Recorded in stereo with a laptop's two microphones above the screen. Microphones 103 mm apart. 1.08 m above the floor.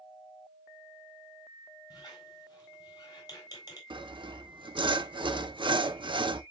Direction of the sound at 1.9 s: 40° left (ahead or behind).